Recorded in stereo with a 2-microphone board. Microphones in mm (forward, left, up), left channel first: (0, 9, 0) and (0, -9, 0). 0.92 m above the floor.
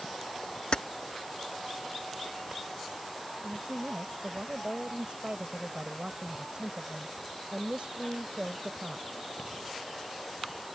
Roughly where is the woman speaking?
Right.